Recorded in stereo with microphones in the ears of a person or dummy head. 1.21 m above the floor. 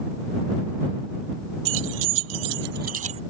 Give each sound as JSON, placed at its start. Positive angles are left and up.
{"t": 1.6, "sound": "keys jangling", "side_deg": -80}